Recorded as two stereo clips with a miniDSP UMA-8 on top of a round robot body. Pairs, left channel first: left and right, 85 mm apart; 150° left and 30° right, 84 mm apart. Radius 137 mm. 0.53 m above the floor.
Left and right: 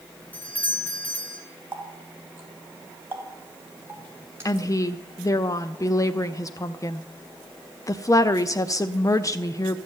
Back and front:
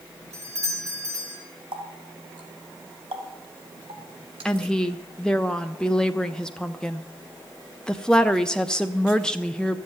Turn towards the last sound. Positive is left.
turn(degrees=75)